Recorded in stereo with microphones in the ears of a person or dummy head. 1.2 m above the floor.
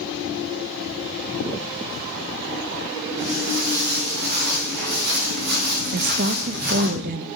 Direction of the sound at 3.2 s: 60° right (ahead or behind).